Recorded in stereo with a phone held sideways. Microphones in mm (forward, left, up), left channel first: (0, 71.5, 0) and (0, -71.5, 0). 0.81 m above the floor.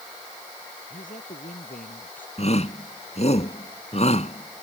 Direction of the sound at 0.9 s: 70° left (ahead or behind).